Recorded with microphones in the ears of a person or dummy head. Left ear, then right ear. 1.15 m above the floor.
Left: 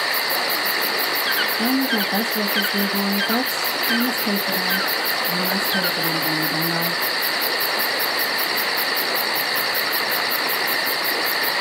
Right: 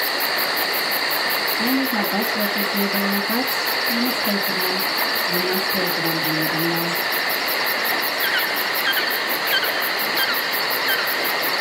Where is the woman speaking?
35° left (ahead or behind), 1.8 m.